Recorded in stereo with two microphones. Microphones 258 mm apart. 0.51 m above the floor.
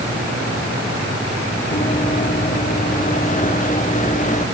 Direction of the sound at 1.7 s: 35° left (ahead or behind).